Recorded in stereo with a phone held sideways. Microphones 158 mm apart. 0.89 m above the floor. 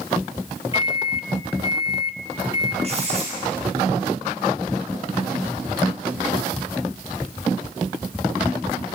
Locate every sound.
0.7 s a microwave: 35° left (ahead or behind), 1.2 m
2.8 s writing: 40° right (ahead or behind), 7.5 m